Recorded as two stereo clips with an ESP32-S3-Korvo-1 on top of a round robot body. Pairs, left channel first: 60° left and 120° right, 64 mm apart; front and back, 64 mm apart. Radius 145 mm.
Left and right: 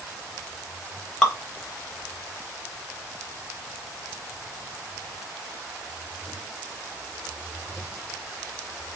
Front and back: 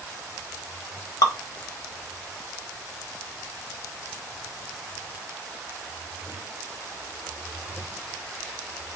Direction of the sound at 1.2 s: 20° right.